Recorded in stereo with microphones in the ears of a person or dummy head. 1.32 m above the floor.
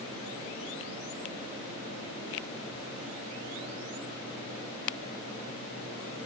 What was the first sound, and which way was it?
Only background noise.